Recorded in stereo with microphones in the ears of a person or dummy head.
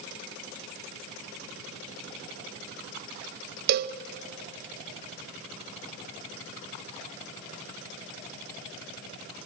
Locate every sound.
3.7 s a cowbell: 50° right (ahead or behind), 0.6 m